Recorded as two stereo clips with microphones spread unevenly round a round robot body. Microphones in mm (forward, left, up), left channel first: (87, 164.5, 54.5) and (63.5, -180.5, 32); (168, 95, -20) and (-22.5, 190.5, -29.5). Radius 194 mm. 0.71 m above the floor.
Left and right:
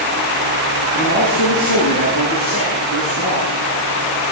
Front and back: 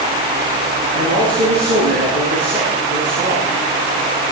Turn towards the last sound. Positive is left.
turn(degrees=145)